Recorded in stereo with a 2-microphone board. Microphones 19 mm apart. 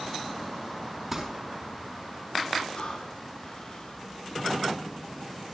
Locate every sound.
1.1 s crumpling: 25° right (ahead or behind), 5 m
2.7 s breathing: 50° left (ahead or behind), 5.5 m